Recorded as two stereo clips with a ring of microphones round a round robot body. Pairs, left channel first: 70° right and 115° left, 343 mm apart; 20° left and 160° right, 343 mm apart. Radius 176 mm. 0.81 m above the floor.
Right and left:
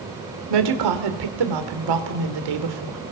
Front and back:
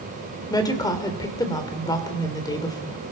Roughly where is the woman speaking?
Left.